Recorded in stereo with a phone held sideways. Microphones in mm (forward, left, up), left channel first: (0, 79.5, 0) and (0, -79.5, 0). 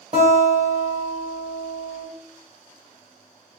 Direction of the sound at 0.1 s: 50° right (ahead or behind).